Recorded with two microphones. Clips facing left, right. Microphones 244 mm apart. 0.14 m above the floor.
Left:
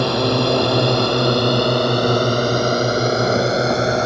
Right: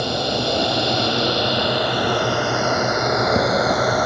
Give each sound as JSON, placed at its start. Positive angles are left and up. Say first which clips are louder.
{"t": 0.0, "sound": "a drone", "louder": "left 5 dB", "side_deg": 70}